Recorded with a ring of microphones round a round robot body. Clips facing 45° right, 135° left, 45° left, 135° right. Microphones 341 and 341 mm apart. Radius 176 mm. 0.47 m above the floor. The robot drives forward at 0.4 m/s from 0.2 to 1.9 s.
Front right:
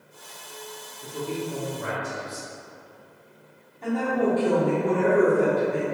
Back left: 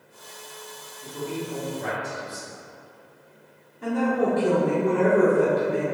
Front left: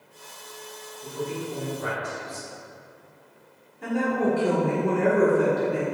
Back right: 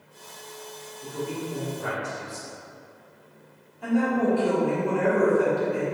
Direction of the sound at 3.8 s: 80° left.